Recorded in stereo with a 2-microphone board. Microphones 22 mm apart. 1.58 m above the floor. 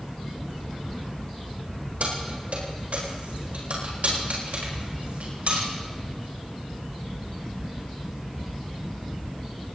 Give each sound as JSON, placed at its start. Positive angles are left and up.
{"t": 2.0, "sound": "keys jangling", "side_deg": -75, "distance_m": 5.0}